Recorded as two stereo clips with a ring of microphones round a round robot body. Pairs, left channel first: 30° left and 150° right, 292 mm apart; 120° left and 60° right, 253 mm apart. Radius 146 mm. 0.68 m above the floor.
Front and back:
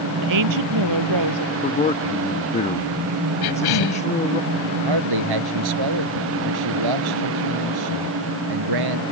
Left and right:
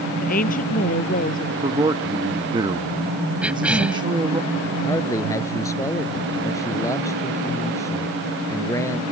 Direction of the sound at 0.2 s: 175° right.